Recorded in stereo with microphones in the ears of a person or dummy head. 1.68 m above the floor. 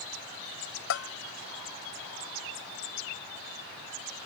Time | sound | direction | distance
0.9 | a bell | 65° left (ahead or behind) | ?